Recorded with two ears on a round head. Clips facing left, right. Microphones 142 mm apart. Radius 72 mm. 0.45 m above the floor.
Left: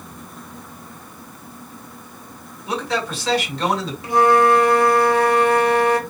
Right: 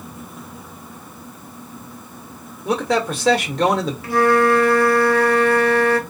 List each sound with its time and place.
2.6 s a man speaking: 45° right (ahead or behind), 1.7 m
4.0 s a flute: 20° left (ahead or behind), 1.1 m